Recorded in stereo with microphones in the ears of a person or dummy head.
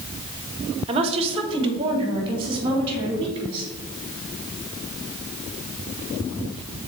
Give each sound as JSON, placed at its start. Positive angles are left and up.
{"t": 0.9, "sound": "a woman speaking", "side_deg": -30, "distance_m": 0.8}